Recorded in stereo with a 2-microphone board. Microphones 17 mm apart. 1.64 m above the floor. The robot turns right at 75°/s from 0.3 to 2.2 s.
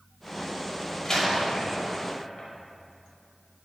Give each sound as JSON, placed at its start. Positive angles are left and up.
{"t": 1.1, "sound": "a door slam", "side_deg": 25, "distance_m": 5.5}